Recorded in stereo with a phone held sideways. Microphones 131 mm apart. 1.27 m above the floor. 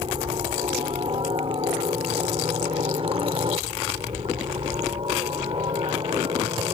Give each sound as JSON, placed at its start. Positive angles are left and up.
{"t": 0.0, "sound": "a helicopter", "side_deg": -45}